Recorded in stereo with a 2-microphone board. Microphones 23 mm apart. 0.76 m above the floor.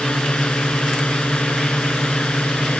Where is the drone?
55° left (ahead or behind); by 2.8 s 65° left (ahead or behind).